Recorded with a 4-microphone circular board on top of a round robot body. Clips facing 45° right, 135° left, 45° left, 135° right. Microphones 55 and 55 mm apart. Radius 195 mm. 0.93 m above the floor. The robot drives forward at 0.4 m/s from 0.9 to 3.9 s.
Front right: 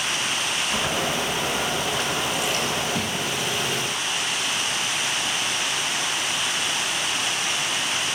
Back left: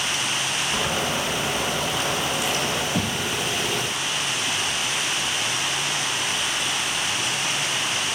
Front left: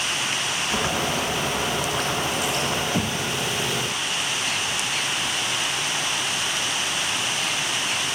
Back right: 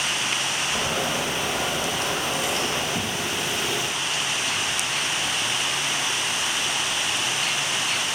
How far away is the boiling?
About 2 m.